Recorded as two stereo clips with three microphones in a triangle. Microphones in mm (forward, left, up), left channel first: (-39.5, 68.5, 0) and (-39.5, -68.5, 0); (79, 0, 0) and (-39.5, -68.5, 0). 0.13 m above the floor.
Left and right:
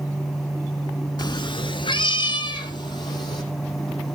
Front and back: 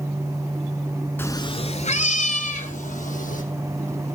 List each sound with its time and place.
1.2 s a cat meowing: 90° left, 0.6 m; by 3.4 s 35° left, 2.5 m